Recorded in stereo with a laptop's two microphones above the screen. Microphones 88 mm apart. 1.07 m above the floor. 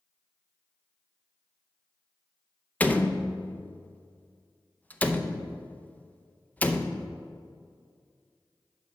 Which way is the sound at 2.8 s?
15° left (ahead or behind).